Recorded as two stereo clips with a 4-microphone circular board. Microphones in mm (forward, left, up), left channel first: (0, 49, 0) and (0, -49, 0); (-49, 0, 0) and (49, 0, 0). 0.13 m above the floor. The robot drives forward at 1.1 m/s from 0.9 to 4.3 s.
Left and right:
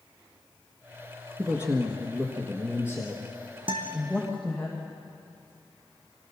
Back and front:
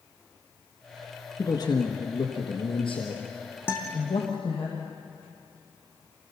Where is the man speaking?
150° right, 1.6 m; by 4.7 s 175° right, 4 m.